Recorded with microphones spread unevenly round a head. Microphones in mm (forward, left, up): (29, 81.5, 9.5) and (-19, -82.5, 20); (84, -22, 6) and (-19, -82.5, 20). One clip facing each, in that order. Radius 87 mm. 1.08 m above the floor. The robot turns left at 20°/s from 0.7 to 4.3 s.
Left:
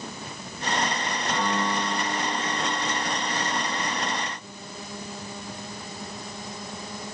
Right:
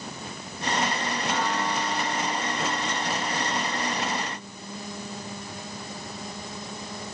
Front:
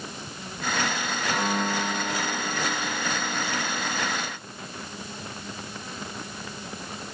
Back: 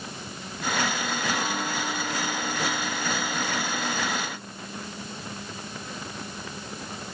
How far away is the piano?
About 6.5 m.